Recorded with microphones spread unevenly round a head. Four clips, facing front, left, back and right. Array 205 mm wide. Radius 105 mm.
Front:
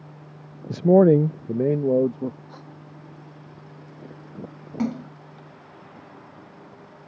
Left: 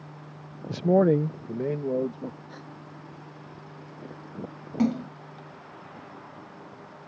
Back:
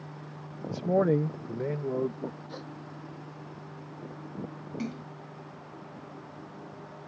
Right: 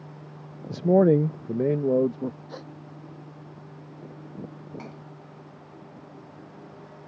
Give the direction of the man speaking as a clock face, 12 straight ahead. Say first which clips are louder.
Right 2 dB, front 10 dB; 12 o'clock.